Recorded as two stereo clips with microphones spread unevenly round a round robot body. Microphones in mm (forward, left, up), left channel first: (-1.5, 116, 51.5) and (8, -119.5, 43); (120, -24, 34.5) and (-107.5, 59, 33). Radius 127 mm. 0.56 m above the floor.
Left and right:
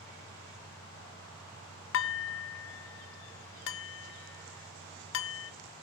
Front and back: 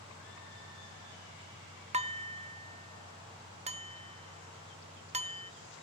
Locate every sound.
1.9 s dishes clattering: 100° left, 0.6 m